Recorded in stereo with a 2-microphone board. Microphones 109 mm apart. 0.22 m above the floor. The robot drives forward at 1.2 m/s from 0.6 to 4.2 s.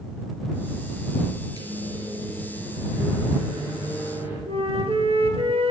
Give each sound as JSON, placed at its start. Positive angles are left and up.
{"t": 1.6, "sound": "a microwave", "side_deg": -35, "distance_m": 3.5}
{"t": 4.5, "sound": "a flute", "side_deg": -65, "distance_m": 1.8}